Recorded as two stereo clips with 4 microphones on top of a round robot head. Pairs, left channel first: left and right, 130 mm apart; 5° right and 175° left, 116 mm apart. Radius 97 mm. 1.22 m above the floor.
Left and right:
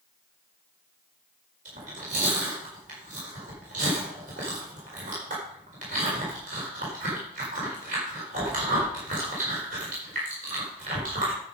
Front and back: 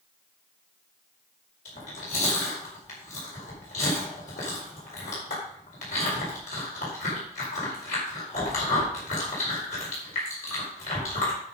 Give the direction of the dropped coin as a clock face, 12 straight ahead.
No dropped coin in this recording.